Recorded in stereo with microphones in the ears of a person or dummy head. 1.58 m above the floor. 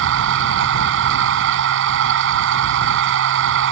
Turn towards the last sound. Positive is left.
turn(degrees=-75)  # may be behind; listen again after turning